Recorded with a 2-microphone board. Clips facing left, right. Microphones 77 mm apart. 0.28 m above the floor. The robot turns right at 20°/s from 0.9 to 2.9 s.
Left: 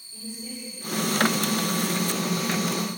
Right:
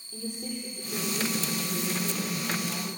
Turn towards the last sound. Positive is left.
turn(degrees=-85)